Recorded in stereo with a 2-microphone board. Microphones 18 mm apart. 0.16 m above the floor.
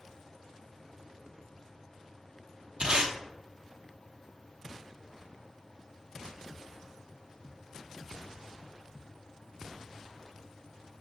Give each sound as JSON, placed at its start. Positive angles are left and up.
{"t": 2.8, "sound": "tape being pulled", "side_deg": -55, "distance_m": 1.0}